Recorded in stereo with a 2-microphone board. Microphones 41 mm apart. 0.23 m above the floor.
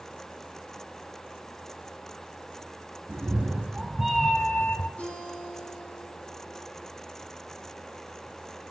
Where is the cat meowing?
45° right (ahead or behind), 1.5 m; by 4.9 s 55° left (ahead or behind), 1.1 m.